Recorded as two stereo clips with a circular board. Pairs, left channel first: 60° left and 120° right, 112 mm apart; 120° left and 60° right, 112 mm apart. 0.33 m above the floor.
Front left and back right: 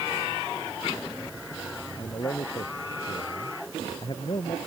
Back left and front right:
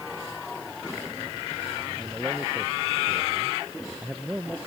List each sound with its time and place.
2.0 s a man speaking: 20° left